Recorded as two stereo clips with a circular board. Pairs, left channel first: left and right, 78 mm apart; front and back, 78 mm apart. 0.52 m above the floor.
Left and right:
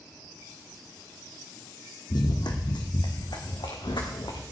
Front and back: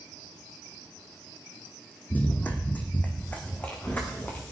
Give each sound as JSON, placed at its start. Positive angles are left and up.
{"t": 2.1, "sound": "running footsteps", "azimuth_deg": 65, "distance_m": 1.5}